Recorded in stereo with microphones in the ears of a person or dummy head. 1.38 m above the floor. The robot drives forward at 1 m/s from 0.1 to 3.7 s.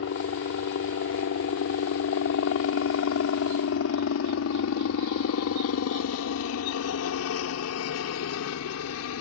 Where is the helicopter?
70° left (ahead or behind); by 9.2 s 75° left (ahead or behind).